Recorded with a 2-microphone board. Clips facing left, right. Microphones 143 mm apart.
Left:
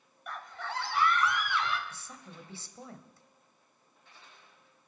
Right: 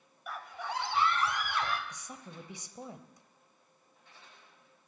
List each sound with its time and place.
0.3 s a scream: 5° right (ahead or behind), 1.8 m; by 1.8 s 45° right (ahead or behind), 1.9 m
1.9 s a woman speaking: 15° right (ahead or behind), 1.0 m